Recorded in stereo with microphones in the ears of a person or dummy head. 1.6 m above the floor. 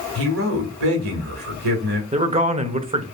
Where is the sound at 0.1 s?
80° right, 1.9 m.